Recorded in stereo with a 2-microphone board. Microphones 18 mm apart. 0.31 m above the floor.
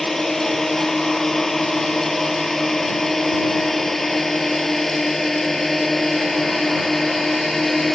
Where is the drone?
20° left (ahead or behind); by 8.0 s 10° left (ahead or behind).